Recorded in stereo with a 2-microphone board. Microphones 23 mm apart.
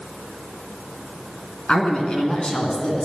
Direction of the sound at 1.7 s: 50° left (ahead or behind).